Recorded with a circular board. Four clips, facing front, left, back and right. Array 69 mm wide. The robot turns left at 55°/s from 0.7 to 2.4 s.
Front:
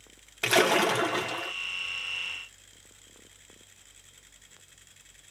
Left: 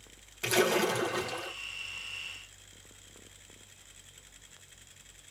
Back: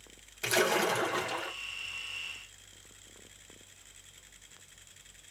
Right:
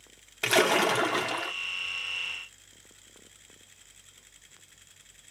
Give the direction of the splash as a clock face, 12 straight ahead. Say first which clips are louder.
Right 4 dB, front 5 dB; 1 o'clock.